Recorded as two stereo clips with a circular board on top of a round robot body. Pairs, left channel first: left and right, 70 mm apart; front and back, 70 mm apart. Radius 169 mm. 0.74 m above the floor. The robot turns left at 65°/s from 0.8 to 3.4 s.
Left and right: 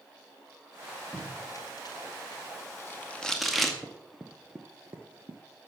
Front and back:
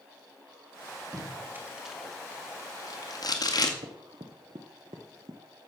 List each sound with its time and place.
1.1 s tape being pulled: 145° left, 2 m; by 3.7 s straight ahead, 2 m
3.8 s running footsteps: 170° left, 1.2 m; by 5.4 s 135° right, 1.1 m